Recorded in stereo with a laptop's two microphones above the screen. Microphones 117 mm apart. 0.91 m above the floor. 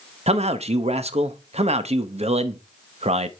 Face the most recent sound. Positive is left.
turn(degrees=-65)  # may be behind; listen again after turning